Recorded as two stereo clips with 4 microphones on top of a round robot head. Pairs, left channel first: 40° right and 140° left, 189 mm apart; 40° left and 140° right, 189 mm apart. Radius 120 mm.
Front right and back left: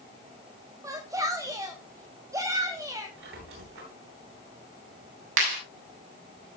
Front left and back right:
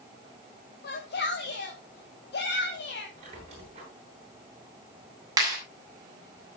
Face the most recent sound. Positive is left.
turn(degrees=145)